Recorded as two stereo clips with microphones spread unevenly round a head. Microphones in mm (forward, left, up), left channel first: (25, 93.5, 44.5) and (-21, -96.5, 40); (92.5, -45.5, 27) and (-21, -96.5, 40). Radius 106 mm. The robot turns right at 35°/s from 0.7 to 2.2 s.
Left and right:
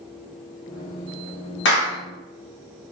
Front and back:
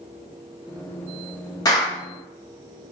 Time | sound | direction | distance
1.6 | a clap | 80° left | 1.1 m